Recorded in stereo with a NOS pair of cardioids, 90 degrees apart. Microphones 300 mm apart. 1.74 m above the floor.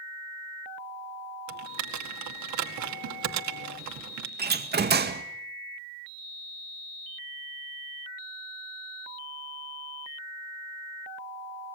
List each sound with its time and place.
1.5 s typing on a keyboard: 70° right, 2 m
4.4 s a door slam: 35° right, 2.0 m